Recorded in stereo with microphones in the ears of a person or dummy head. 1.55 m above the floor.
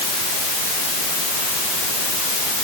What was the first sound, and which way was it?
Only background noise.